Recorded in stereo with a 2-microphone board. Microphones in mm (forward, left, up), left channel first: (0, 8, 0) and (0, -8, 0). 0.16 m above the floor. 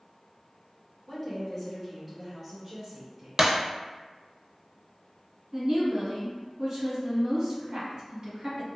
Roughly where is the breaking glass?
Right.